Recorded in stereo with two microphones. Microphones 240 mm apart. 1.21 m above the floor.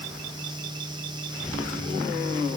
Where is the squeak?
I don't hear a squeak.